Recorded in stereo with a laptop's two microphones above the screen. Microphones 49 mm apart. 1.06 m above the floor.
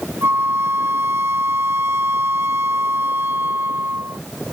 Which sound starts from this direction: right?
A flute, at 0.2 s.